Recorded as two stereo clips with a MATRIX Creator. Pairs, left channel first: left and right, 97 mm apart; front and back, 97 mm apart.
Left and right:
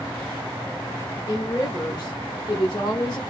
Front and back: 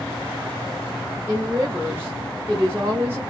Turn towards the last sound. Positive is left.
turn(degrees=120)